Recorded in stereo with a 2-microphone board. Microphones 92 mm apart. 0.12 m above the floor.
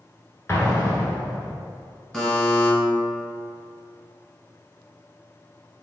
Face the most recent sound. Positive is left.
turn(degrees=5)  # may be behind; listen again after turning